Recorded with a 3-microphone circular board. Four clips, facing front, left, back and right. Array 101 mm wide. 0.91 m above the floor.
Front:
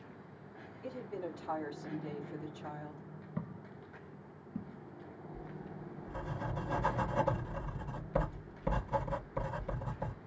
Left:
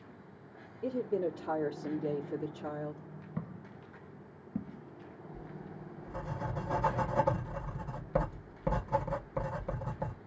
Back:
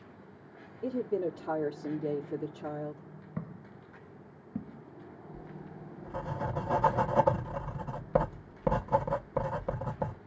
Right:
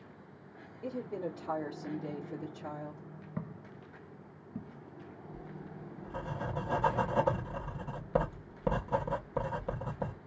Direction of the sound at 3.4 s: 155° right.